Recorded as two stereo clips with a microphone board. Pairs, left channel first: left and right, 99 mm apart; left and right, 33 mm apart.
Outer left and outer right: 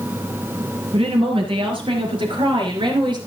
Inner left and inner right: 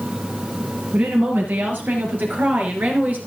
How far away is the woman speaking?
About 4.5 m.